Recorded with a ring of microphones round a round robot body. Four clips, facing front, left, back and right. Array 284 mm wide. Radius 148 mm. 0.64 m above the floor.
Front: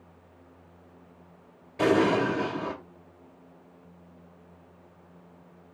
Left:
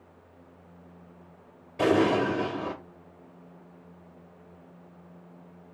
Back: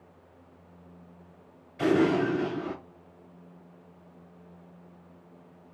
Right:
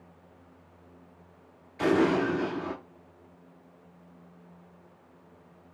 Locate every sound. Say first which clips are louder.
1.8 s an explosion: left 1 dB, front 1 dB; 50° left, 3 m